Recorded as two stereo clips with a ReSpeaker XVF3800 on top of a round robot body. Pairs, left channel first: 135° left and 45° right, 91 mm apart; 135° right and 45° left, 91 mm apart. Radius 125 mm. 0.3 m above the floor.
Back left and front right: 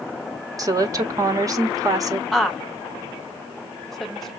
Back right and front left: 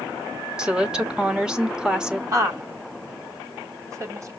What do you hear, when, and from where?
0.6 s a woman speaking: 30° right, 1.2 m
2.3 s a woman speaking: 50° left, 1.2 m